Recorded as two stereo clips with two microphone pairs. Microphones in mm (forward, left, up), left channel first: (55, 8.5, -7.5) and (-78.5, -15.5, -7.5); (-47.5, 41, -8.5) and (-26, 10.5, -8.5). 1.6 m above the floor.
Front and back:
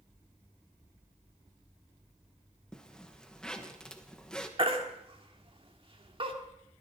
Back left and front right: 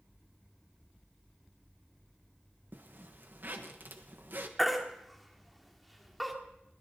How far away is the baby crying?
About 1.5 m.